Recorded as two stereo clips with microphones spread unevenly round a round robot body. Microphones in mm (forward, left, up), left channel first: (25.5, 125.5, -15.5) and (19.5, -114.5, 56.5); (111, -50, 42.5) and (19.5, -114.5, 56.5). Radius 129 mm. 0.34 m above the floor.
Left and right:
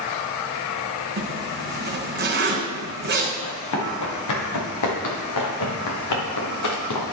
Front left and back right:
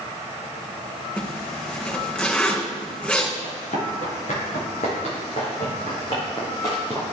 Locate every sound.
1.2 s a zipper: 45° right, 4 m
3.4 s running footsteps: 75° left, 4.5 m; by 7.0 s 115° left, 3.5 m